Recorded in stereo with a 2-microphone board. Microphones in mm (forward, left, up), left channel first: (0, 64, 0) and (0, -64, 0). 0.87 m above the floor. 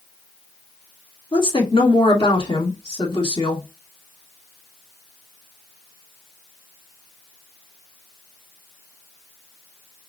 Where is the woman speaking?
40° left (ahead or behind), 2 m.